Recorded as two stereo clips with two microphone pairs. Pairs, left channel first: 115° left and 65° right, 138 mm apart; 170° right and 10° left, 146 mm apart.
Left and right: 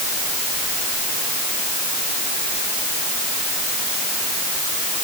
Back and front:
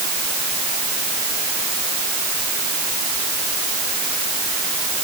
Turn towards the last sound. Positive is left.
No sound to turn to.